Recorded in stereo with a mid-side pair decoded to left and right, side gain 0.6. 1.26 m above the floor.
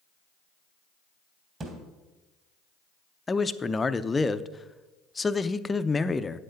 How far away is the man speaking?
About 0.6 m.